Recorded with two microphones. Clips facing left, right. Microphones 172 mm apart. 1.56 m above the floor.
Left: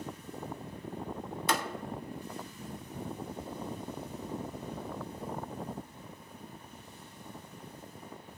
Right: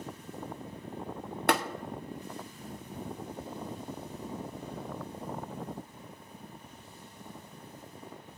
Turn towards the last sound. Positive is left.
turn(degrees=-65)  # may be behind; listen again after turning